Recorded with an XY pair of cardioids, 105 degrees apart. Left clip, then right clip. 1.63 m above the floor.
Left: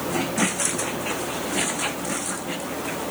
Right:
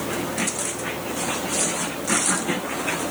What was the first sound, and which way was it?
Only background noise.